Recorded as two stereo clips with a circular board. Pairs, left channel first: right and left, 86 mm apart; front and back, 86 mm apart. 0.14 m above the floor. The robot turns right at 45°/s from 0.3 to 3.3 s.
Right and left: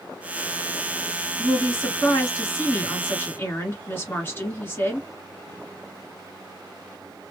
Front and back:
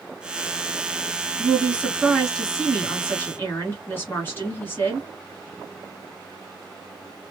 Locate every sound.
1.4 s a woman speaking: 135° right, 1.7 m; by 5.1 s 50° right, 1.7 m